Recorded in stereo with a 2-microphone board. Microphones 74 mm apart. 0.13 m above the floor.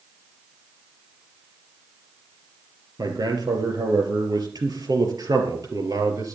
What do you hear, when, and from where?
3.0 s a man speaking: 60° right (ahead or behind), 3.5 m; by 6.4 s 55° right (ahead or behind), 3 m